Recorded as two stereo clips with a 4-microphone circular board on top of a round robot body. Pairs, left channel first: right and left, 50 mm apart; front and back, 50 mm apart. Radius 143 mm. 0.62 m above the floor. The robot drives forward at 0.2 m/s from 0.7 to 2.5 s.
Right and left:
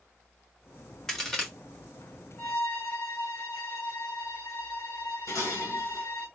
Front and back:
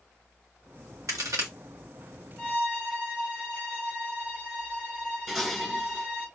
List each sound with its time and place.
1.1 s a crack: 170° right, 1.6 m
2.4 s a violin: 115° right, 2.5 m
5.3 s dishes clattering: 105° right, 2.5 m